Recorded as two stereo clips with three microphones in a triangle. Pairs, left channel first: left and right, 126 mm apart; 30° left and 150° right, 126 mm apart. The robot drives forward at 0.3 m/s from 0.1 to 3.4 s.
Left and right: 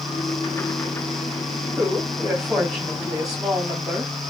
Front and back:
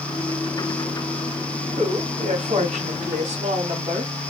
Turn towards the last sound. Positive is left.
turn(degrees=180)